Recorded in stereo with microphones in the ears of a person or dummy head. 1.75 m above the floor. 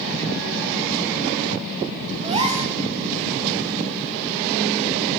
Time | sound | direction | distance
2.2 | a gasp | 30° right (ahead or behind) | 0.7 m